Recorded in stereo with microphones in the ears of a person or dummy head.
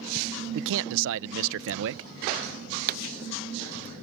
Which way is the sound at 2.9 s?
50° right (ahead or behind).